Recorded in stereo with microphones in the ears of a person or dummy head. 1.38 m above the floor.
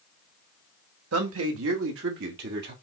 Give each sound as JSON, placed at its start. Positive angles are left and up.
{"t": 1.1, "sound": "a man speaking", "side_deg": -85, "distance_m": 1.9}